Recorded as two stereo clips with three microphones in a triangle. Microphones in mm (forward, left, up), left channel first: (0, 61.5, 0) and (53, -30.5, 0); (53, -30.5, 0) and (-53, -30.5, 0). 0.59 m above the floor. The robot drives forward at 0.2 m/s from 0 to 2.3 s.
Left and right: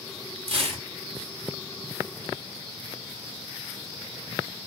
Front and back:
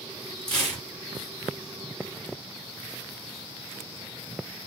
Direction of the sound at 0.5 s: 80° right.